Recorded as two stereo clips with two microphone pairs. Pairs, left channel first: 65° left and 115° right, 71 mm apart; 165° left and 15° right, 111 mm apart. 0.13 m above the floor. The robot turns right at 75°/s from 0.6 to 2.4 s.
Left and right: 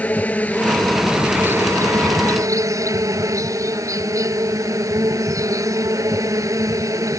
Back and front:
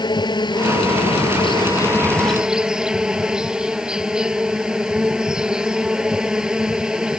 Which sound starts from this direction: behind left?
An insect, at 0.0 s.